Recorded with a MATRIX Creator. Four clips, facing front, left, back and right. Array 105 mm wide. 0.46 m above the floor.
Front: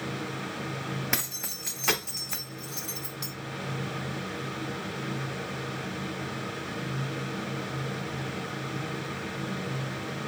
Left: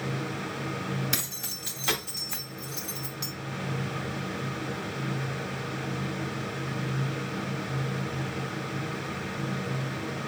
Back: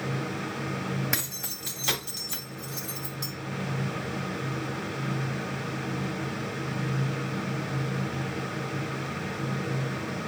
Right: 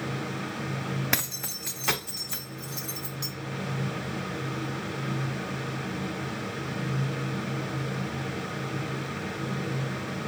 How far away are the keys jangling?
About 1.1 m.